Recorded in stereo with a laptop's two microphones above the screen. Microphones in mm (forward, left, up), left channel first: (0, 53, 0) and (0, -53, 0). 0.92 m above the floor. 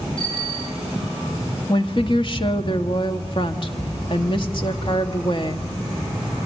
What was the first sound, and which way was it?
A bicycle bell, 50° left (ahead or behind).